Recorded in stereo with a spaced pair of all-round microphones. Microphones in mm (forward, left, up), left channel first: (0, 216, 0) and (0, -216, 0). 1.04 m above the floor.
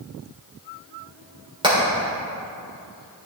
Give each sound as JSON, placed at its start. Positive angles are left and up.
{"t": 1.6, "sound": "hammering", "side_deg": -10, "distance_m": 3.5}